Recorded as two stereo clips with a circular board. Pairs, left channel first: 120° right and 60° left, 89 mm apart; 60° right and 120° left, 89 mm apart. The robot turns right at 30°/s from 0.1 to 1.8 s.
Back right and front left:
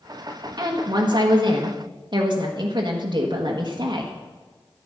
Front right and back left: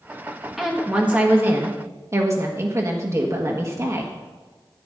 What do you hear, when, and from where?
0.6 s a woman speaking: 35° left, 1.4 m; by 4.2 s 75° left, 1.4 m